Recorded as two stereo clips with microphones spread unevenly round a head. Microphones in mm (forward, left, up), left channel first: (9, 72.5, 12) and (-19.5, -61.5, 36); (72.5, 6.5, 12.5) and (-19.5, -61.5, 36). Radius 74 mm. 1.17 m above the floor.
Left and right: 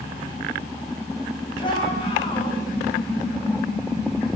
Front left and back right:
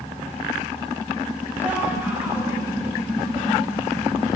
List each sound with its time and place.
1.6 s a shout: 135° left, 9 m